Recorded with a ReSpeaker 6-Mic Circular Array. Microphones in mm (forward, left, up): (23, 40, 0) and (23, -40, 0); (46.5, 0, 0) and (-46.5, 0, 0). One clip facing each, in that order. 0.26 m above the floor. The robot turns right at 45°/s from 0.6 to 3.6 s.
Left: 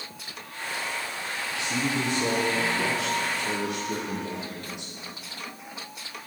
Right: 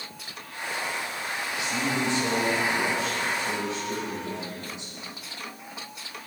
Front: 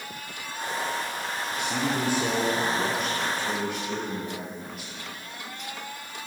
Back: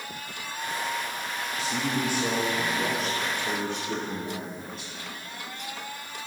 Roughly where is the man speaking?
Ahead left.